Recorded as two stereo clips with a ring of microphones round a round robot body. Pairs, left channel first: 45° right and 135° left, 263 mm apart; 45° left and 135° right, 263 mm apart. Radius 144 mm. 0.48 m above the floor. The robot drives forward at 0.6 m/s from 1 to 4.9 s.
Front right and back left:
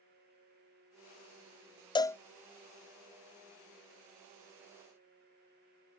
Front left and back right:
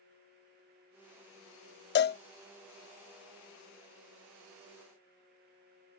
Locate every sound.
1.9 s a cowbell: 20° left; by 2.2 s 35° left